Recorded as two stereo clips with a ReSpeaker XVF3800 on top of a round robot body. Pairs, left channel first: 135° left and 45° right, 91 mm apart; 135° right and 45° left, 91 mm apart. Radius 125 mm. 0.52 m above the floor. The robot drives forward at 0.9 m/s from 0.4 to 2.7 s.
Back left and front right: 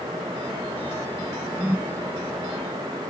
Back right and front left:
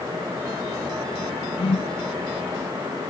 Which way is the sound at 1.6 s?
115° right.